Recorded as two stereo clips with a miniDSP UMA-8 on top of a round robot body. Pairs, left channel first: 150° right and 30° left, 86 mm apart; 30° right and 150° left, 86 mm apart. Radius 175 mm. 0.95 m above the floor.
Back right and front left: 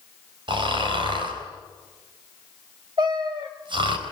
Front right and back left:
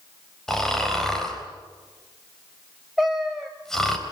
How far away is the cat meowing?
About 0.8 m.